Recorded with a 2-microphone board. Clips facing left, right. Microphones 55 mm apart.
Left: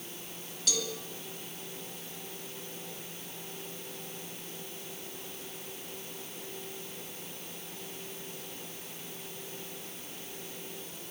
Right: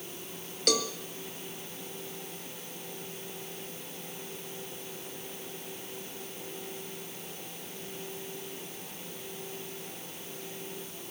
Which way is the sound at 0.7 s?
60° right (ahead or behind).